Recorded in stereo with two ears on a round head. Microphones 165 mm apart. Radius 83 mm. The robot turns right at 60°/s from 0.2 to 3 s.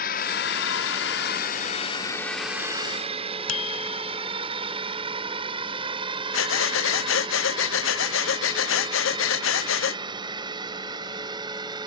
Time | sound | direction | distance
0.0 | a drone | 50° left (ahead or behind) | ?
3.5 | a bicycle bell | 85° left | ?
6.3 | breathing | 80° left | ?